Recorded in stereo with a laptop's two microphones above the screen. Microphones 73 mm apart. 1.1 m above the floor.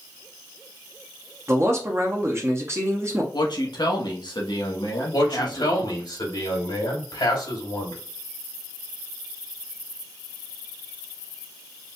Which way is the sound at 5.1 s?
65° left (ahead or behind).